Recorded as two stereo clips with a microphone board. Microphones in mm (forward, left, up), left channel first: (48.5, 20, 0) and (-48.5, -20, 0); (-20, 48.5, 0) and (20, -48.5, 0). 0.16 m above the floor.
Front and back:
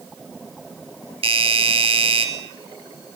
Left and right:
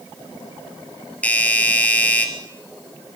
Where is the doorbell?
170° right, 3.5 m.